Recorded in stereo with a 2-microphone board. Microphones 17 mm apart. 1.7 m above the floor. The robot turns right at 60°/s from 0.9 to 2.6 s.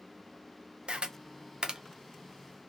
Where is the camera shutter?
60° right (ahead or behind), 0.6 m; by 1.8 s 35° right (ahead or behind), 0.6 m.